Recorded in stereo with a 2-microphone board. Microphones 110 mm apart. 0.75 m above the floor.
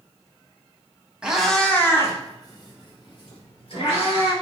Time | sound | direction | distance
1.2 | a cat meowing | 10° right (ahead or behind) | 0.7 m